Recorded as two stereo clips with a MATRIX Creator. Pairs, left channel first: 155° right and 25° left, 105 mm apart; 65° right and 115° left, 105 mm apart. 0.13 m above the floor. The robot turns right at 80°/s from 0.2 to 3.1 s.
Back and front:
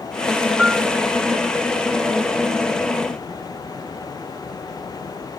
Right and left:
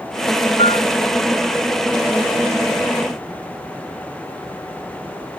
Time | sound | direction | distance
0.6 | a piano | 65° right | ?